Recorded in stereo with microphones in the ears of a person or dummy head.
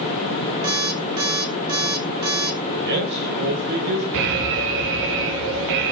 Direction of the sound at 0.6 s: 30° right (ahead or behind).